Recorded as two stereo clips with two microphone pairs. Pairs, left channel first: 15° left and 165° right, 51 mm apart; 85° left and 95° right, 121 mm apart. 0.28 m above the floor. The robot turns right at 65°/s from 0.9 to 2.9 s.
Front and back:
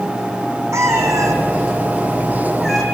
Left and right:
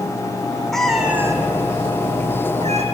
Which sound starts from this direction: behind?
A cat meowing, at 0.7 s.